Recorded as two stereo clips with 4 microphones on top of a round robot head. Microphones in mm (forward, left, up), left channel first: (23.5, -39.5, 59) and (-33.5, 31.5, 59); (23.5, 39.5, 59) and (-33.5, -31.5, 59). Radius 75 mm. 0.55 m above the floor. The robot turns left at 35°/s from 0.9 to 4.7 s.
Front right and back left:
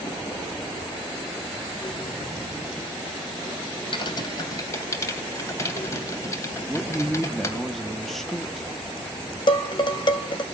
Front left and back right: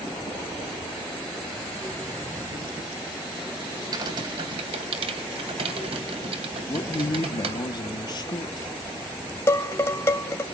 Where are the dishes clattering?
15° right, 2.5 m.